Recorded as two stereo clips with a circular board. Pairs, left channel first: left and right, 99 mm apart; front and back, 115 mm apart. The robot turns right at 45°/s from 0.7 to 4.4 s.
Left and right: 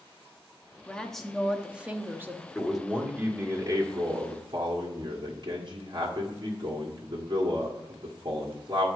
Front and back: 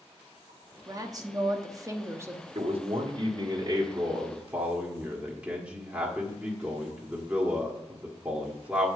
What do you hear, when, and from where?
0.9 s a woman speaking: 160° left, 0.9 m; by 2.5 s 130° right, 0.9 m
2.5 s a man speaking: 175° left, 1.5 m; by 8.9 s 100° right, 1.5 m